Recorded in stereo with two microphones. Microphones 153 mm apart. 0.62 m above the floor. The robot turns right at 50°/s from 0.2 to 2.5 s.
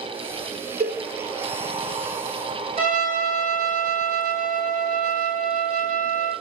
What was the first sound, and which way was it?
A cowbell, 70° right (ahead or behind).